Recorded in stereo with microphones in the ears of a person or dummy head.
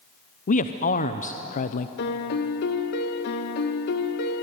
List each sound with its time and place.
0.5 s a man speaking: 45° left (ahead or behind), 0.9 m
2.0 s a piano: 55° left (ahead or behind), 2.0 m